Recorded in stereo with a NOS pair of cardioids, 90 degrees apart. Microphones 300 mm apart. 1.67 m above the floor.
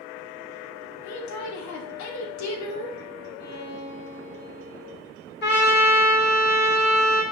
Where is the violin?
55° left, 1.5 m.